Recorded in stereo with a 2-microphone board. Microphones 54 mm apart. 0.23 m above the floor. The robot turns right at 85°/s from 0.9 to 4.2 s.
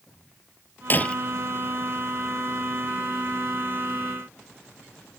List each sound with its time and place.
0.9 s breaking glass: 40° left (ahead or behind); by 1.1 s 15° left (ahead or behind)